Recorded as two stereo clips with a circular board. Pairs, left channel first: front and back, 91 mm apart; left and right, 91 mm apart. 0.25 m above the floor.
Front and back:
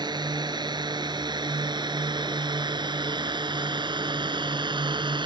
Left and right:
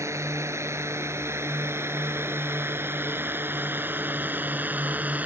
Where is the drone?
145° right; by 5.3 s 160° right.